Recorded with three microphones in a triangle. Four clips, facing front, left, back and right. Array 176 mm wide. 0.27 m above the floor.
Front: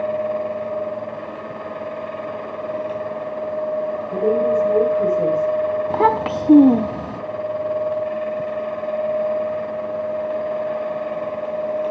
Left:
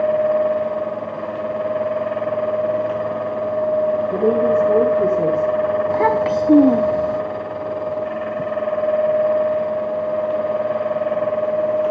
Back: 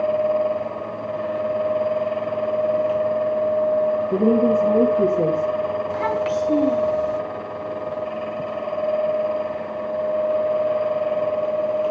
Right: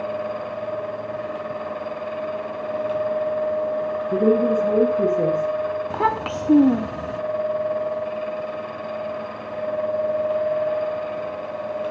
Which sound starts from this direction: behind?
A woman speaking, at 4.1 s.